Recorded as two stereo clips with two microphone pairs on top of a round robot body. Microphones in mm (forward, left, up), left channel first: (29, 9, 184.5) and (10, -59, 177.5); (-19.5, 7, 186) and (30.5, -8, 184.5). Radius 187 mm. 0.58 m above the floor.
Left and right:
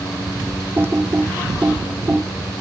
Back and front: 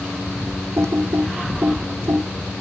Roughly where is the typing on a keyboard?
Ahead right.